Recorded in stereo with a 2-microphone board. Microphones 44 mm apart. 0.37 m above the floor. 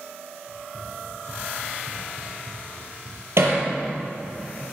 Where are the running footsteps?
40° right (ahead or behind), 4.5 m; by 4.4 s 65° right (ahead or behind), 4 m.